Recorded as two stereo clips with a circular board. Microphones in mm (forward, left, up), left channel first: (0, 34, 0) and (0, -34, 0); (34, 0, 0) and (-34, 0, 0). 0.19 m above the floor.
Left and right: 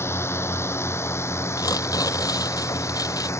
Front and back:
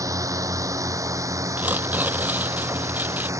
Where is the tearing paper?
115° left.